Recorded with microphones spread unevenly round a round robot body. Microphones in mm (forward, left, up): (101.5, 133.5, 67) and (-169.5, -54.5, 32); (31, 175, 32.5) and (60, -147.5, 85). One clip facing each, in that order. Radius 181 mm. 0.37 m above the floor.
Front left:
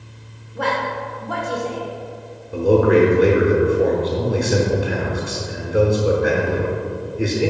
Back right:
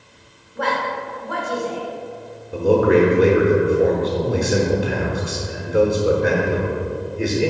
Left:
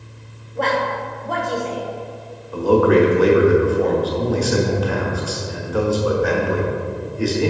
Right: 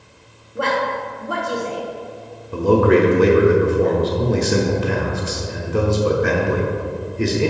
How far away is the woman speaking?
About 1.2 m.